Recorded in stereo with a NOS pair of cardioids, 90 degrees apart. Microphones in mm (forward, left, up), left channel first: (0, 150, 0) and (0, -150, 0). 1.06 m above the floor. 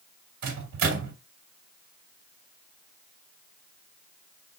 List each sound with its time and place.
0.4 s a microwave: 70° right, 2.5 m